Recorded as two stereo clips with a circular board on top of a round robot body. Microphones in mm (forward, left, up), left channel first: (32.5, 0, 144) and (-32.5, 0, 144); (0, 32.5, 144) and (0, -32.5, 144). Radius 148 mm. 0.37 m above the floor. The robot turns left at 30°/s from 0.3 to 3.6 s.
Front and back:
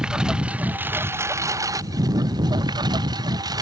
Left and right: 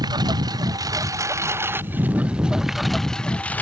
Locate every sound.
0.0 s a lawn mower: 100° right; by 3.6 s 155° left